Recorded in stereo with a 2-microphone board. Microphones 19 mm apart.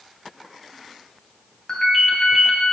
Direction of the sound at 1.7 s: 40° left (ahead or behind).